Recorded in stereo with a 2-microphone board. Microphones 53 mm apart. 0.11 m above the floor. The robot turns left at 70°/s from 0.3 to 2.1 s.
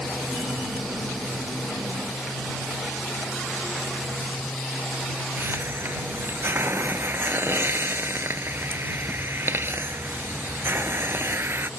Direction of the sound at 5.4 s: 50° right (ahead or behind).